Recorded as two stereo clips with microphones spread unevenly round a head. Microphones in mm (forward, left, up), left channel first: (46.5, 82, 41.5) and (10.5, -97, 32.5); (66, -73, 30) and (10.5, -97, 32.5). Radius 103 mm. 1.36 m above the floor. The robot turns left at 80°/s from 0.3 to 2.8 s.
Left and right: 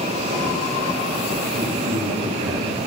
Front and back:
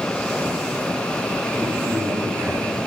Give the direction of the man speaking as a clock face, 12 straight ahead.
1 o'clock.